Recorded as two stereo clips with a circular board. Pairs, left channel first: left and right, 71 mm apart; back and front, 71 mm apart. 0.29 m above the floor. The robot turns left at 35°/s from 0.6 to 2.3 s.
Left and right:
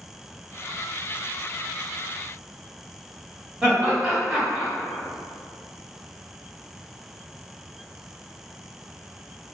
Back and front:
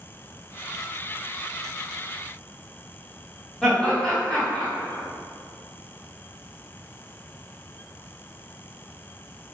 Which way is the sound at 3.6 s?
135° right.